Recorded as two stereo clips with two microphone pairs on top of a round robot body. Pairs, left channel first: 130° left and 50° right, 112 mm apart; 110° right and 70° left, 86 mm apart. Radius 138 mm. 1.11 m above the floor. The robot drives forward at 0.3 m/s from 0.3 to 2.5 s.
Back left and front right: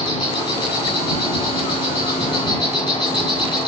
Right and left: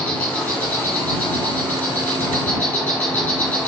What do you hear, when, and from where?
0.0 s an insect: 170° left, 8 m; by 3.7 s 175° left, 8.5 m